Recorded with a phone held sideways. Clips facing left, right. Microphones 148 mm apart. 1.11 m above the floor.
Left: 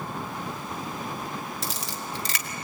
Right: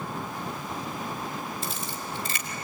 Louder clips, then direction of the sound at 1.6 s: Even; 80° left.